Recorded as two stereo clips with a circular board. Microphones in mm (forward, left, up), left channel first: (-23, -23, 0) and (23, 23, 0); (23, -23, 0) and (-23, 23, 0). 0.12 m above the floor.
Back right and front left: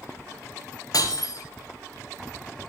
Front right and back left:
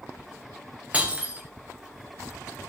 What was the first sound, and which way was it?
Breaking glass, 155° right.